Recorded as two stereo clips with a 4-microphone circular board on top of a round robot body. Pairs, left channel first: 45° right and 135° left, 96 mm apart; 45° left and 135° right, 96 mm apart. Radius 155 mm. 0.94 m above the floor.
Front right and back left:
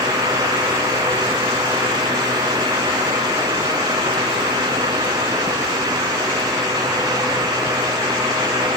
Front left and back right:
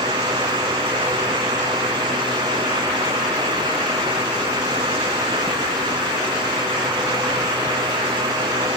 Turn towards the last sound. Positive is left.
No sound to turn to.